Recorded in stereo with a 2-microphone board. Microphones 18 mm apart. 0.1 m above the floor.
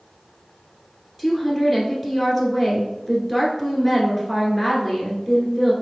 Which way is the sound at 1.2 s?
5° right (ahead or behind).